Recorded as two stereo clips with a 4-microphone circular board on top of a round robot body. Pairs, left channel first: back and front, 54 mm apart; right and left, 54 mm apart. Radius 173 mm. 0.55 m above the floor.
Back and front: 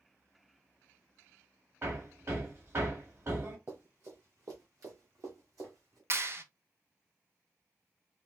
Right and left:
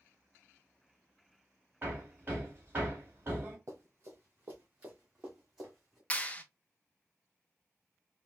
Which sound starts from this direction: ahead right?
A clap, at 6.1 s.